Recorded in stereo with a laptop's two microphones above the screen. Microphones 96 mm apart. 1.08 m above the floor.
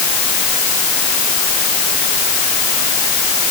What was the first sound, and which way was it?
Only background noise.